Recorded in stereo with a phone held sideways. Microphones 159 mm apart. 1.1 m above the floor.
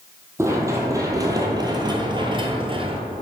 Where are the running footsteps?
20° right (ahead or behind), 2.0 m; by 3.0 s 35° right (ahead or behind), 1.3 m.